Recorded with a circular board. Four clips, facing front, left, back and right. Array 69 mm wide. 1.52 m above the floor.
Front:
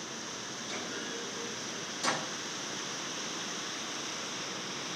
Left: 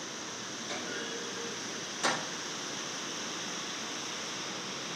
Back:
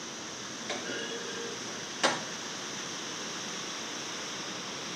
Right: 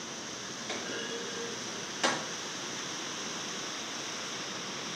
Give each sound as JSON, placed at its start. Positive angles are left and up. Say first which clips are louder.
{"t": 0.7, "sound": "a clunk", "louder": "right 1 dB, back 4 dB", "azimuth_deg": -155, "distance_m": 5.0}